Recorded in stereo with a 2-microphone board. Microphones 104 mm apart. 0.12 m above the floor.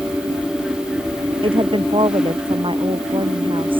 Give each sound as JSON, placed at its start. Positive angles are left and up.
{"t": 1.4, "sound": "a woman speaking", "side_deg": -55}